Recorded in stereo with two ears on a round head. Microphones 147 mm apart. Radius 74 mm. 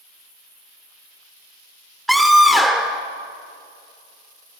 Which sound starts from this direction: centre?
A scream, at 2.1 s.